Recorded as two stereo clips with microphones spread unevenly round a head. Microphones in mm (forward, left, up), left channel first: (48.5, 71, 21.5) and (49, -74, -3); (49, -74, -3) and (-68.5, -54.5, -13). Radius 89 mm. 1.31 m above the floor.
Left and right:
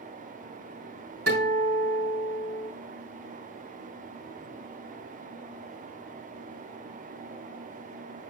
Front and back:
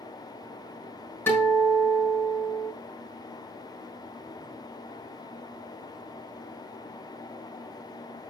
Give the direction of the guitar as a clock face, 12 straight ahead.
3 o'clock.